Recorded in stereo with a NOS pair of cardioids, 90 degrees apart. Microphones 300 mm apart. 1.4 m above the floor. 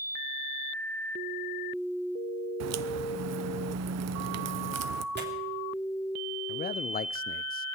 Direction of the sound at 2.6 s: 65° right.